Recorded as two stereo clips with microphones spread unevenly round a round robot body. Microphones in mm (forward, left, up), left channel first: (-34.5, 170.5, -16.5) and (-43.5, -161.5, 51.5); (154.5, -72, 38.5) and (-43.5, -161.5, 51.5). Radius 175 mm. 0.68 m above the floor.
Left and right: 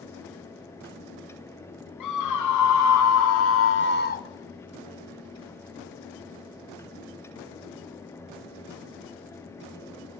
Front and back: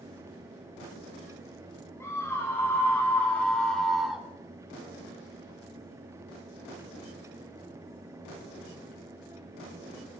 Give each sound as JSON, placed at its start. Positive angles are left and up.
{"t": 2.0, "sound": "a scream", "azimuth_deg": 105, "distance_m": 2.0}